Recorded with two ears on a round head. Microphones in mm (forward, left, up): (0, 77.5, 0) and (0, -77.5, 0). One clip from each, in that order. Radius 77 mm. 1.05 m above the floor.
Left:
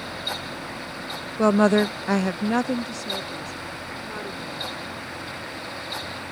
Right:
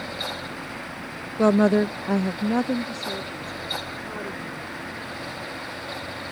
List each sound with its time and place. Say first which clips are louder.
1.4 s a woman speaking: left 1 dB; 10° left (ahead or behind); by 4.7 s 35° left (ahead or behind)